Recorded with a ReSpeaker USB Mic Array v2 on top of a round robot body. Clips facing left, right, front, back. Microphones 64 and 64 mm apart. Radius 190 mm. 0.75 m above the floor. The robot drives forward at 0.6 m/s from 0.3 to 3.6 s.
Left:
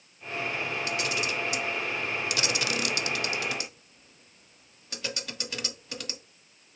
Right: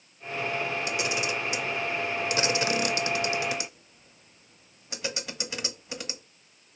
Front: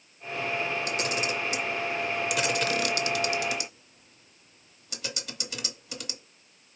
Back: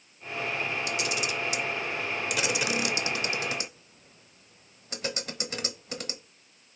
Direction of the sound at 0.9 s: 20° right.